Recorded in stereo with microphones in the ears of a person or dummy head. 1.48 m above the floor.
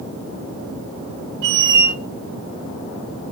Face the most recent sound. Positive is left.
turn(degrees=-60)  # may be behind; listen again after turning